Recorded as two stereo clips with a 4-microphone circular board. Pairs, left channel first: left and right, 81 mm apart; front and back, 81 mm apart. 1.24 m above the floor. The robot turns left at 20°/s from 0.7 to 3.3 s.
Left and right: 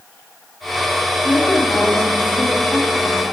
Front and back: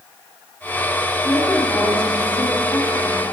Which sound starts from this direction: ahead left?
A woman speaking, at 1.2 s.